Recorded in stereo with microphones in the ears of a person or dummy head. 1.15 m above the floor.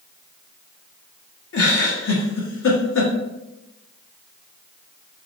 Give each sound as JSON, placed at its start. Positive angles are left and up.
{"t": 1.5, "sound": "a giggle", "side_deg": 70, "distance_m": 1.2}